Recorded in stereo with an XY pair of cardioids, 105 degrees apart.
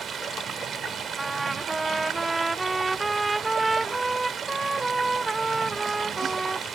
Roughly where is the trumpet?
Ahead.